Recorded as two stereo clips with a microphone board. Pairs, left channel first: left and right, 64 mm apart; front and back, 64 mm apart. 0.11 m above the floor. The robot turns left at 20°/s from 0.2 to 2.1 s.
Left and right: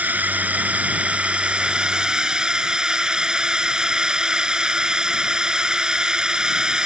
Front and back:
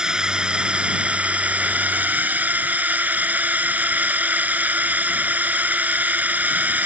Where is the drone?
115° right; by 6.9 s 155° right.